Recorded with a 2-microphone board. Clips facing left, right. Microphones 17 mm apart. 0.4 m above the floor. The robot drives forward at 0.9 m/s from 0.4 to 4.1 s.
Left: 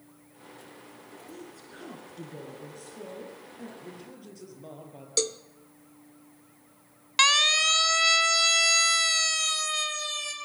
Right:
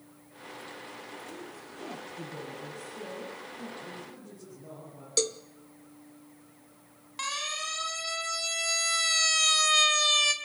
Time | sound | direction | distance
1.3 | a woman speaking | 25° left (ahead or behind) | 4.5 m
3.8 | a man speaking | 75° left (ahead or behind) | 8.5 m
5.2 | a cowbell | centre (ahead or behind) | 0.6 m
7.2 | a siren | 75° left (ahead or behind) | 2 m